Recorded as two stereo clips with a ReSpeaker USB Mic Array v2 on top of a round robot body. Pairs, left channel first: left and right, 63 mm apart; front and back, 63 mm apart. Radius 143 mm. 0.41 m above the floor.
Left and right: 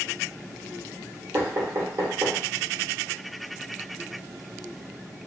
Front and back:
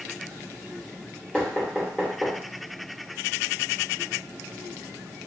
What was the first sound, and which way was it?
Knocking, 65° right.